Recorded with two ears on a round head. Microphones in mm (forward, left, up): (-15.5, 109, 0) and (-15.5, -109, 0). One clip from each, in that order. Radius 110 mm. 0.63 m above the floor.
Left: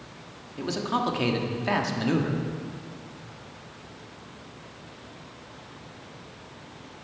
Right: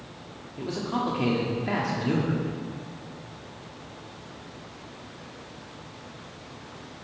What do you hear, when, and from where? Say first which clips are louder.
0.6 s a man speaking: left 2 dB; 45° left (ahead or behind), 1.4 m